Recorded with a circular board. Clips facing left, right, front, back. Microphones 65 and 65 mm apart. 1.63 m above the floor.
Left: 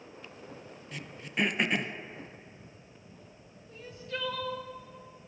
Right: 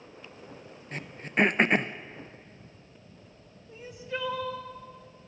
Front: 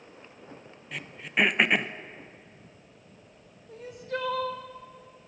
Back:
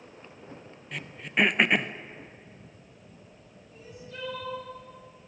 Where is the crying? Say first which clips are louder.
Right 3 dB, front 10 dB; 20° right, 2.0 m.